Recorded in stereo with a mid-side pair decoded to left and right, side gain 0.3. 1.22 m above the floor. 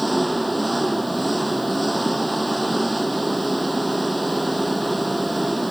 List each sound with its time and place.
0.0 s an engine running: 5° right